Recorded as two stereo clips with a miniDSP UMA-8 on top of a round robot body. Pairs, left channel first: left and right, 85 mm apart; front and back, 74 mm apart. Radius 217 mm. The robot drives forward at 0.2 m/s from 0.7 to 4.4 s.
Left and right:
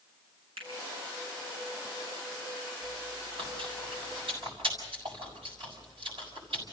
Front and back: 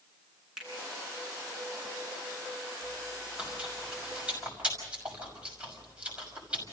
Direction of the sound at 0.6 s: 95° right.